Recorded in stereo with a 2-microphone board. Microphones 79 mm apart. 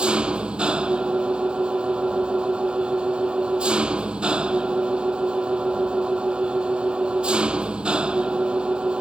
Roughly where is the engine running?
Centre.